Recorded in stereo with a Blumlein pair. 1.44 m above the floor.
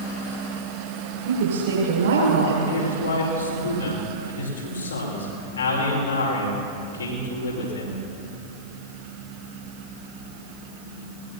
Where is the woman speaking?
55° right, 6.5 m.